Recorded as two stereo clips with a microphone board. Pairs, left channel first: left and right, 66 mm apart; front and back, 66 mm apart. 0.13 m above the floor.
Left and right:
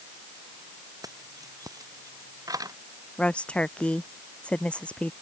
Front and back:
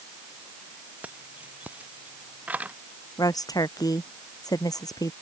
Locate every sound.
1.0 s keys jangling: 115° right
3.2 s a woman speaking: 20° left